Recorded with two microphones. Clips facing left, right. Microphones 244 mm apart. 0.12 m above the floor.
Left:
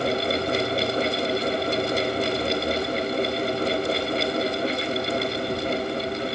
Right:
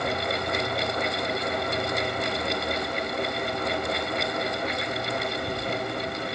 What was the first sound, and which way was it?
Only background noise.